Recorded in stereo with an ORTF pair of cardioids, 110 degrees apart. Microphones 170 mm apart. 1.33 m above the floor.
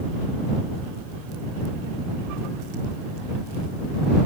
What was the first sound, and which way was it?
Only background noise.